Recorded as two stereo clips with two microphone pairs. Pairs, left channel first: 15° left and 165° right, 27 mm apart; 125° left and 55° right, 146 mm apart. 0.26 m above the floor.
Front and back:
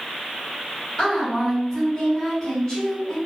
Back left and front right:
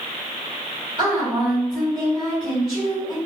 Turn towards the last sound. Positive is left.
turn(degrees=-20)